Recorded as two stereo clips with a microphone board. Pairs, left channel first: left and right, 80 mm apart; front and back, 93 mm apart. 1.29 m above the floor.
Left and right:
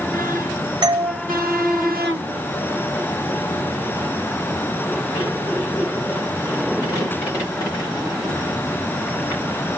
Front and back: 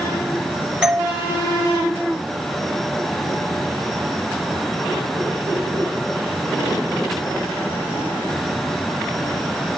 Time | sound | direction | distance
0.8 | a doorbell | 100° right | 2.5 m